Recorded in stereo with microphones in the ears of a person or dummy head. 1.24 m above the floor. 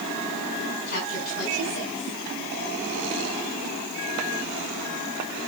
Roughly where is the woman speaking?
Left.